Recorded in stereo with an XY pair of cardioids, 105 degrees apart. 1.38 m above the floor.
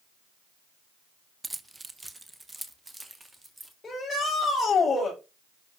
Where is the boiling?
I don't hear boiling.